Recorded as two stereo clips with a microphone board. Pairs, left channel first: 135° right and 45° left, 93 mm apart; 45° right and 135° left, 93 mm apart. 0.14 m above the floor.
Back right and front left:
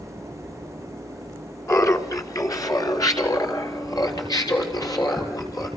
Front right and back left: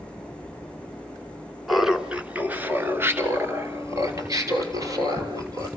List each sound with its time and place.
1.7 s laughter: 135° right, 1.4 m; by 5.7 s straight behind, 3.5 m